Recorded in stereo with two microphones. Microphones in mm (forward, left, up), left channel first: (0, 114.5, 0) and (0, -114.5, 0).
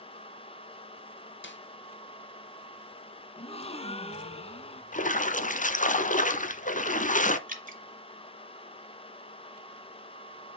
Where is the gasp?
30° left (ahead or behind), 0.5 m.